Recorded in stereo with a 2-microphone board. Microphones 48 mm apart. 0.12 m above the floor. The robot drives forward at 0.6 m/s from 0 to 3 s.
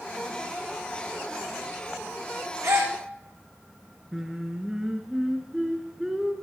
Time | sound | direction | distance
2.6 | a gasp | 85° right | 1.9 m
4.1 | singing | 10° right (ahead or behind) | 1.6 m